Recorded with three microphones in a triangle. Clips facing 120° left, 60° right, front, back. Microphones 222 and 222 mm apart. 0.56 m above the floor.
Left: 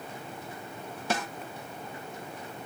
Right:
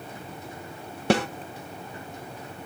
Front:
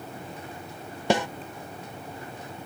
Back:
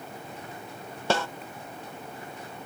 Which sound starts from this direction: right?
A snare drum, at 1.1 s.